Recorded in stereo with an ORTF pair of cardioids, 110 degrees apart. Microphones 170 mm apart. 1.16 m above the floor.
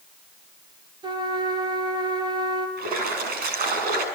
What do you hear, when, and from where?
1.0 s a trumpet: 25° right, 4 m
2.8 s a splash: 65° right, 7 m